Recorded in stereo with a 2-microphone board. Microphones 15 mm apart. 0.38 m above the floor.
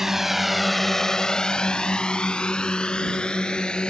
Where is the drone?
25° right (ahead or behind); by 3.9 s 65° left (ahead or behind).